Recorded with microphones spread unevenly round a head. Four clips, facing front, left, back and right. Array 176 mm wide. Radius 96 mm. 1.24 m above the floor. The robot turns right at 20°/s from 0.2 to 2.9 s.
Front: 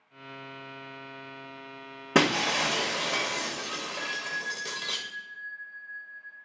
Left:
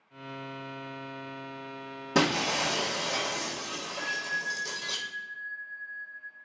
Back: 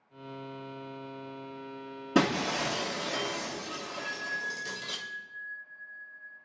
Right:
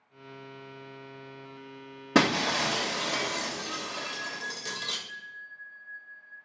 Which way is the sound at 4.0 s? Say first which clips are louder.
Left 3 dB, front 1 dB; 10° left.